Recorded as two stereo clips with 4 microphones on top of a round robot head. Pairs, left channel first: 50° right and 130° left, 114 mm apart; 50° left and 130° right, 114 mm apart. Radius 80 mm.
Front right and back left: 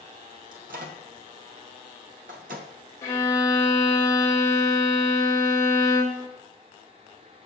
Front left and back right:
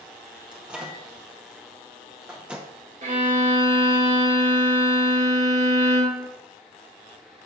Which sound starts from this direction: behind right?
A violin, at 3.0 s.